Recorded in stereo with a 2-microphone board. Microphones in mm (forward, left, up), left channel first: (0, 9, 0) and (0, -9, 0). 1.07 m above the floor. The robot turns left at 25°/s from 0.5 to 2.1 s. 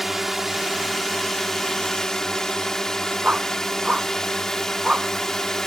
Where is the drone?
165° right; by 5.7 s 155° left.